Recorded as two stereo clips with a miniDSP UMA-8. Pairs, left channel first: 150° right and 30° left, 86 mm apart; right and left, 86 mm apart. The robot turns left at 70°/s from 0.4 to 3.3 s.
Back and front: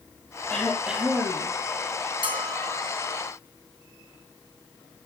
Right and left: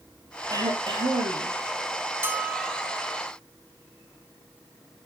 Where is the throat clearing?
135° left, 3.5 m; by 1.5 s 65° left, 3.5 m.